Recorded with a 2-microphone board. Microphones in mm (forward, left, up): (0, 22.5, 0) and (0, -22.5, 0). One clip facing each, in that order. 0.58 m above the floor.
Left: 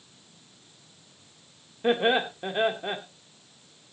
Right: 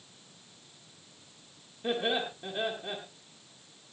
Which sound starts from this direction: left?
Laughter, at 1.8 s.